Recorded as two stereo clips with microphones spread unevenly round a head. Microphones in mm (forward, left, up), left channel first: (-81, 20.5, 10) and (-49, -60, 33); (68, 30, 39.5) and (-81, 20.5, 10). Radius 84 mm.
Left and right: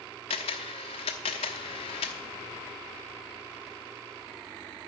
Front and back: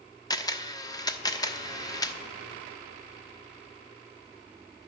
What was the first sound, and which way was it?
A camera shutter, 60° left.